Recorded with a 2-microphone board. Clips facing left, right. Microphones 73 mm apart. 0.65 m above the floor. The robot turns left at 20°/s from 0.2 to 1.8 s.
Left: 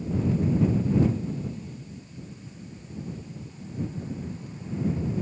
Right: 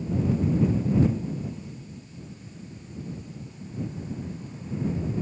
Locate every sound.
Only background noise.